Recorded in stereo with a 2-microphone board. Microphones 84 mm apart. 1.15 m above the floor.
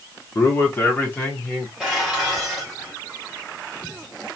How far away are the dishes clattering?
About 4 m.